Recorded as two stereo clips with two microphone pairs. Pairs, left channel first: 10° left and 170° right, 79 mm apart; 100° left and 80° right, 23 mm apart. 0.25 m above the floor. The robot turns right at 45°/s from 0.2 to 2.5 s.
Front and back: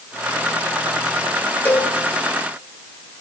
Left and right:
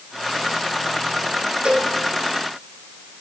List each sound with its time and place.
1.6 s a cowbell: 55° right, 2.5 m; by 1.9 s 45° right, 2.5 m